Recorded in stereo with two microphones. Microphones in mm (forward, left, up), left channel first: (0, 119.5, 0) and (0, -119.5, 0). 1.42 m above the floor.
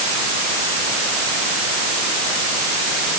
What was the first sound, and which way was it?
Only background noise.